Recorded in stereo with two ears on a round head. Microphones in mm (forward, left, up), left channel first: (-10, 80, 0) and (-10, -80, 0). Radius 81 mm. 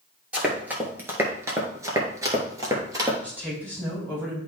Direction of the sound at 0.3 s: 5° right (ahead or behind).